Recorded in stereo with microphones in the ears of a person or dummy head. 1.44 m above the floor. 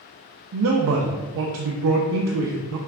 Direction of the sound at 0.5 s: 70° right (ahead or behind).